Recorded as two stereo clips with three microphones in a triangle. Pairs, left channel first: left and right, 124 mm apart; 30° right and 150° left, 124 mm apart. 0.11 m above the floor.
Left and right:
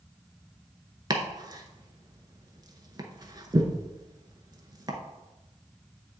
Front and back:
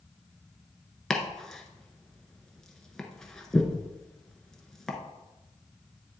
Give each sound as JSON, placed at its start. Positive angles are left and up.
{"t": 1.1, "sound": "chopping", "azimuth_deg": -115, "distance_m": 0.9}